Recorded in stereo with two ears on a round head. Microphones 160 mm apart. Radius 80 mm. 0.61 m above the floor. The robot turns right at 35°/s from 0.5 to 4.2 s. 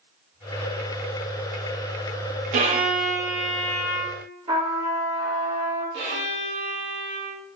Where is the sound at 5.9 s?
60° right (ahead or behind), 2 m.